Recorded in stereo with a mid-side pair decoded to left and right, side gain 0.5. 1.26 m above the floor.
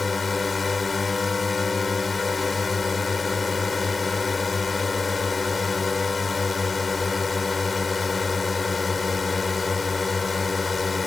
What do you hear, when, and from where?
0.0 s a drone: 25° left